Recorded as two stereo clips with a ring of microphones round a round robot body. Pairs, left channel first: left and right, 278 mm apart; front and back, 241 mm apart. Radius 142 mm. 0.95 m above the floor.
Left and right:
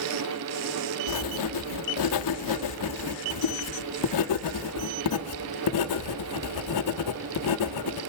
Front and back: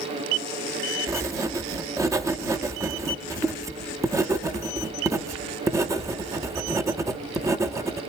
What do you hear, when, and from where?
1.1 s writing: 105° left, 0.7 m